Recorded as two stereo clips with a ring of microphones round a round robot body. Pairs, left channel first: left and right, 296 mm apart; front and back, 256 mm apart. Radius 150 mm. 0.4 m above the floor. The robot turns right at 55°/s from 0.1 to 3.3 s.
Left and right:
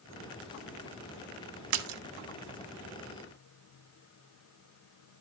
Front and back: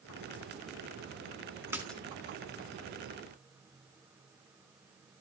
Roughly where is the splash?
Right.